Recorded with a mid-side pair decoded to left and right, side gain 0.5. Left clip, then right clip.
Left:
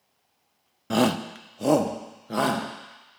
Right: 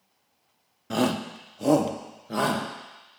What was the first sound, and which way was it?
A shout, 30° left.